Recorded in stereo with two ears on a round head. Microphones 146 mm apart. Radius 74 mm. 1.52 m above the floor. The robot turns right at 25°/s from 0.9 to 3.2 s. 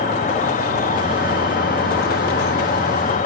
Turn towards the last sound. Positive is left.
turn(degrees=115)